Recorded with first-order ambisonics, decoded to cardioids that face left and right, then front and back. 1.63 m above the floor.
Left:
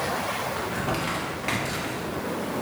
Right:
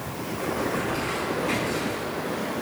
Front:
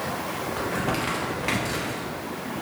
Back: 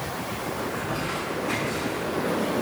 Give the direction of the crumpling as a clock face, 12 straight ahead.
11 o'clock.